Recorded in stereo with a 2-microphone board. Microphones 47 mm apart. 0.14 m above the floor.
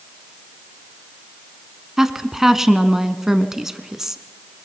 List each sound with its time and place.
2.0 s a woman speaking: 10° right (ahead or behind), 1.1 m